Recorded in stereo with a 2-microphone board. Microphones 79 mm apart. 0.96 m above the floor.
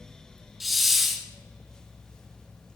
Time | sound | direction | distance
0.6 | a hiss | centre (ahead or behind) | 1.5 m